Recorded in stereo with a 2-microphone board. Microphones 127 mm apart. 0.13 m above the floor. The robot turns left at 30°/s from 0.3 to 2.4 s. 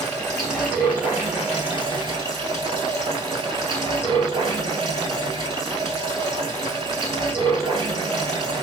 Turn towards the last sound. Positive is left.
turn(degrees=-55)